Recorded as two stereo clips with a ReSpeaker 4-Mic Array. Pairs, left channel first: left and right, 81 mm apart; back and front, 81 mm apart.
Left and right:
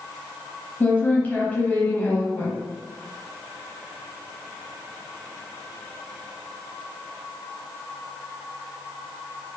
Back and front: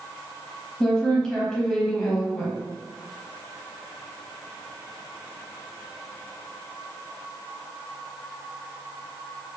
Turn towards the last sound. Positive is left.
turn(degrees=110)